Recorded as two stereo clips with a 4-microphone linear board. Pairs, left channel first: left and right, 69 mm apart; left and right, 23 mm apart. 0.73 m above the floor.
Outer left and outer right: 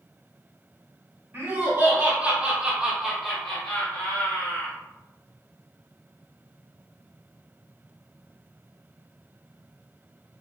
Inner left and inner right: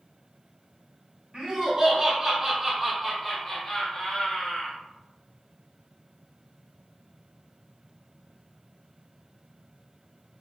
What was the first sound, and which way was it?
Laughter, 40° right (ahead or behind).